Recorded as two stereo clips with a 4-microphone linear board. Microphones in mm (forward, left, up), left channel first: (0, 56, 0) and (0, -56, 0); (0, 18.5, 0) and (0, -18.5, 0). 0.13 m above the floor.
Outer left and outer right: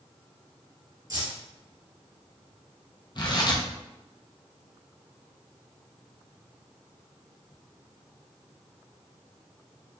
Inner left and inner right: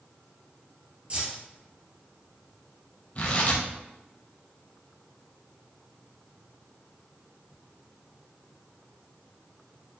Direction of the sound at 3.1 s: 40° left (ahead or behind).